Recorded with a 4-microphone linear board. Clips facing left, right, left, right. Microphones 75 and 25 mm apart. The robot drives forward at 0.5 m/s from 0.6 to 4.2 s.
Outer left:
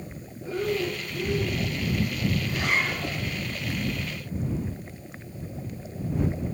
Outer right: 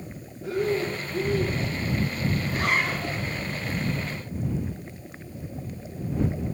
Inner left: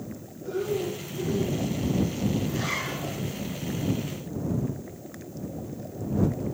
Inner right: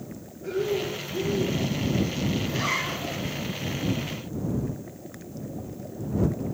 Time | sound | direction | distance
0.4 | breathing | 75° right (ahead or behind) | 4.5 m
2.5 | a zipper | 45° right (ahead or behind) | 7.5 m